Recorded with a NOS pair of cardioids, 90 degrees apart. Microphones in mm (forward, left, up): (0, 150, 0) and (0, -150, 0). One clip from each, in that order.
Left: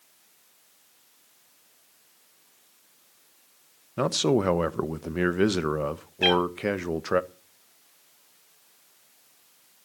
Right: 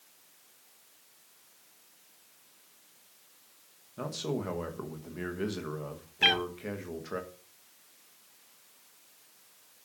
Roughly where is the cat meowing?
Ahead.